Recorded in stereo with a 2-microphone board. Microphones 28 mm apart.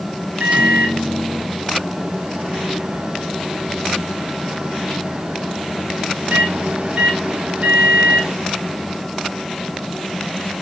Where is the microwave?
45° right (ahead or behind), 1.1 m.